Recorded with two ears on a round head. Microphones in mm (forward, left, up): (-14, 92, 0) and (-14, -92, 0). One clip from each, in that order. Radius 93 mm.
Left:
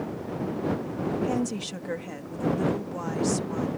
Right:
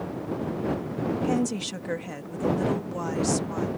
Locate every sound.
1.2 s a woman speaking: 10° right (ahead or behind)